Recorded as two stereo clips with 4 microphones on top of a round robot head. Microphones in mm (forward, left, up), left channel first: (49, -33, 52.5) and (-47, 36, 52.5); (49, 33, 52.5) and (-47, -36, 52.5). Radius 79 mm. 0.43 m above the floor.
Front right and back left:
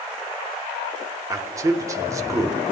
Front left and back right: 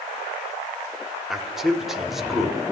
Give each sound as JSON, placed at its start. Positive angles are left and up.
{"t": 1.3, "sound": "a man speaking", "azimuth_deg": 135, "distance_m": 1.2}